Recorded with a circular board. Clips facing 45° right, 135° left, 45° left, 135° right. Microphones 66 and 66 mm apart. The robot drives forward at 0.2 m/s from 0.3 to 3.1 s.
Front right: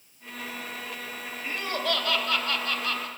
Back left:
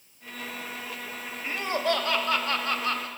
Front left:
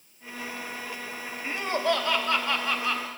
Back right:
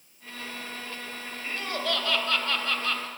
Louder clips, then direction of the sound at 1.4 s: Back left 3 dB, front left 5 dB; 85° left.